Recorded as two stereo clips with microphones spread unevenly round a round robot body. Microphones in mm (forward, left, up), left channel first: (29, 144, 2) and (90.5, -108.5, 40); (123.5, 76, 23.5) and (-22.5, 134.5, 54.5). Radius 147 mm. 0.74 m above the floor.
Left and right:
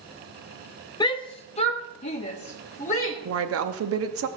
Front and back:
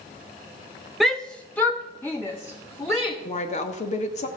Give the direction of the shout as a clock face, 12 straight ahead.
10 o'clock.